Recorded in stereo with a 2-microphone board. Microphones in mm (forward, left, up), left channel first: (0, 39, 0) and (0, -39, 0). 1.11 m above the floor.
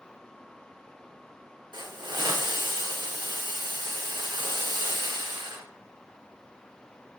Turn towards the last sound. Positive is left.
turn(degrees=-80)